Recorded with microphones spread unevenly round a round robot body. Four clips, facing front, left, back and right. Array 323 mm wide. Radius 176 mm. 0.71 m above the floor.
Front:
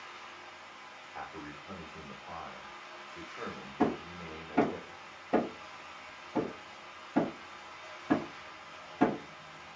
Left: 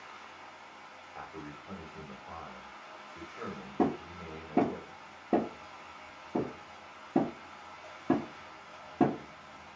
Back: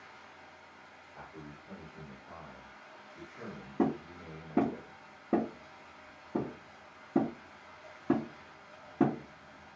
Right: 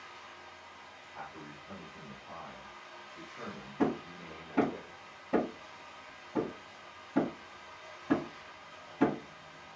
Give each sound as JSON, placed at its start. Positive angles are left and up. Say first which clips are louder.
{"t": 0.0, "sound": "running water", "louder": "left 1 dB, front 5 dB", "azimuth_deg": 90, "distance_m": 1.0}
{"t": 1.1, "sound": "a man speaking", "louder": "left 2 dB, front 5 dB", "azimuth_deg": 50, "distance_m": 1.1}
{"t": 3.8, "sound": "hammering", "louder": "left 1 dB, even", "azimuth_deg": 130, "distance_m": 0.6}